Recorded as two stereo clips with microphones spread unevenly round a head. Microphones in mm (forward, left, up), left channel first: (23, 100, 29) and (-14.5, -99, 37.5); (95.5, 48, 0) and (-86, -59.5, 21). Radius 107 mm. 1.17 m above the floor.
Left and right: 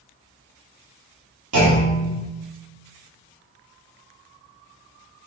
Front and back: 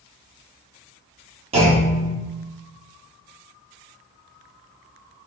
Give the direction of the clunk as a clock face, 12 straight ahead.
3 o'clock.